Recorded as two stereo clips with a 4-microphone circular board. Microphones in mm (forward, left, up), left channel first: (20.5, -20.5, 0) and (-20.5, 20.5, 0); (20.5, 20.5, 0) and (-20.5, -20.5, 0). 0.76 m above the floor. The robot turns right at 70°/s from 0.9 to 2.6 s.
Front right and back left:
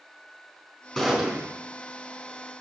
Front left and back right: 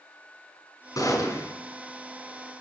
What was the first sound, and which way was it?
A gunshot, 45° left.